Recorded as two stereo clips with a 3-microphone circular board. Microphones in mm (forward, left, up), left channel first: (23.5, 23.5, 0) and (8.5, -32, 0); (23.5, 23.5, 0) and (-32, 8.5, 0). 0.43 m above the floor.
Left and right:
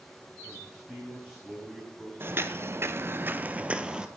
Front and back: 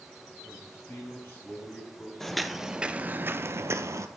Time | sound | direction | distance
0.4 | a man speaking | 10° right | 3.5 m
2.2 | footsteps | 65° right | 0.7 m